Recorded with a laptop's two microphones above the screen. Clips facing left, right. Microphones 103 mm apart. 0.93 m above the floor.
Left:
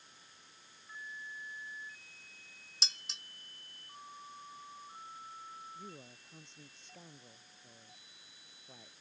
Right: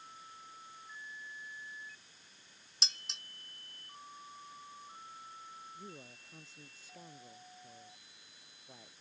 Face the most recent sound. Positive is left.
turn(degrees=-5)  # may be behind; listen again after turning